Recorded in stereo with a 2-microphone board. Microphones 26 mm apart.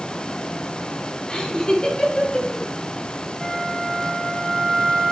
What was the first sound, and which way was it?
Laughter, 25° left (ahead or behind).